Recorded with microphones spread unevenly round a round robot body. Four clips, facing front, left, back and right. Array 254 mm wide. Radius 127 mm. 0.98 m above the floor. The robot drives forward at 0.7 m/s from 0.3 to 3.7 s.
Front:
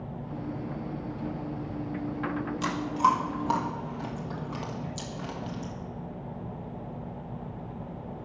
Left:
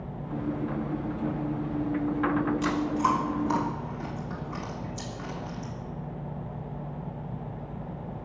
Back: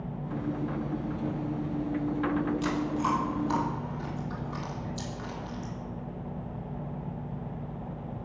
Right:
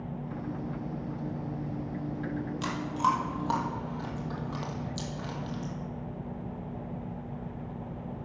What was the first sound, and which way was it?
Chewing, 25° right.